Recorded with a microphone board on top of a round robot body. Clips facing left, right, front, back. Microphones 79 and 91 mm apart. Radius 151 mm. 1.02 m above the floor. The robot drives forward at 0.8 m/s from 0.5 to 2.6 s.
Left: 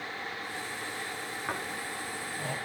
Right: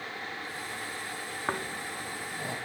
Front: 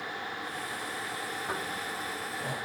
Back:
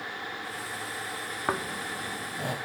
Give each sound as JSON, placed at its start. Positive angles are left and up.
{"t": 1.5, "sound": "snoring", "azimuth_deg": -155, "distance_m": 0.8}